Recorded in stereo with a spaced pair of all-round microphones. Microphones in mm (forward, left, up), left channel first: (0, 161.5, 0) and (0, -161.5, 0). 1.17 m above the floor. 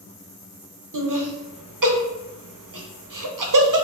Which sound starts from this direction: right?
Laughter, at 0.9 s.